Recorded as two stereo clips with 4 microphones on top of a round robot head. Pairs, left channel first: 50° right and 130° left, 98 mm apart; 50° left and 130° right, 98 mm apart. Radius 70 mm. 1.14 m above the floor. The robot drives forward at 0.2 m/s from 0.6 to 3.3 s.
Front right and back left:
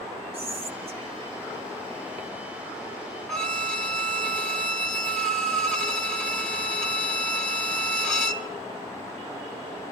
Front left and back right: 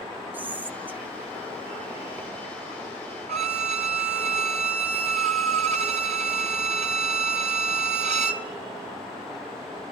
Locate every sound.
0.3 s whispering: 155° left, 2.5 m; by 2.3 s 160° left, 2.5 m
3.3 s a violin: 135° right, 2 m